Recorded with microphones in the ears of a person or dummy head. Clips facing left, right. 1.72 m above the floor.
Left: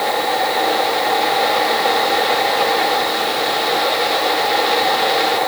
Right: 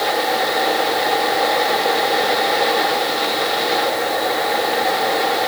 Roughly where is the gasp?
No gasp in this recording.